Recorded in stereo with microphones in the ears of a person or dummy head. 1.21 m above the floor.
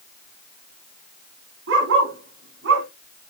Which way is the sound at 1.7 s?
70° right (ahead or behind).